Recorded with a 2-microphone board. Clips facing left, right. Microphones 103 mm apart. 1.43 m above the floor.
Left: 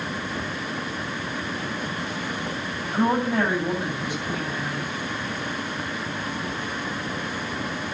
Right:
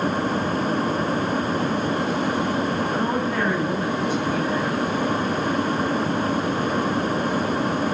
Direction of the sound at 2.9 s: 15° left (ahead or behind).